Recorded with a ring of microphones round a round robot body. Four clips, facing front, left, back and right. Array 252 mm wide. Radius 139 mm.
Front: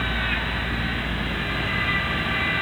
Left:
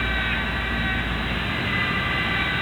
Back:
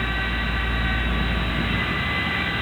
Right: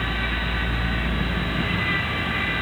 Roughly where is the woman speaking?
No woman speaking in this recording.